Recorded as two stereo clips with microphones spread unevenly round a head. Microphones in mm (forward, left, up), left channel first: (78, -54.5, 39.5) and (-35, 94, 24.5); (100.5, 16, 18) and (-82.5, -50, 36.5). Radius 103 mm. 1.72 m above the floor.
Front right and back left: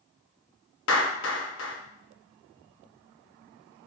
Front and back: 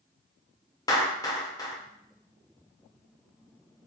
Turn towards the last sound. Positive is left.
turn(degrees=-55)